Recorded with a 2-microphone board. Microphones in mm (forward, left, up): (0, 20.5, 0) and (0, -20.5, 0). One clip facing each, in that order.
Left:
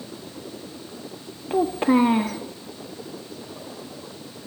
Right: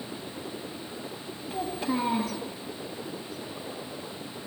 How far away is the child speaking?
About 0.6 m.